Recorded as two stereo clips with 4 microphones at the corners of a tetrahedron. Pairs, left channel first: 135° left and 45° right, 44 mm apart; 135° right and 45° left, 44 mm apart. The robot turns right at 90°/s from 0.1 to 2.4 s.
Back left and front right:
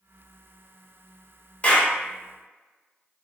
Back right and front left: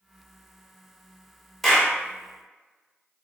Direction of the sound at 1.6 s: 140° left.